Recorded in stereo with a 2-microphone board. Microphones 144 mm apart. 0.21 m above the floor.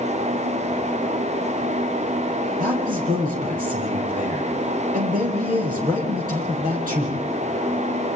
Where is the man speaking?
75° right (ahead or behind), 7.5 m.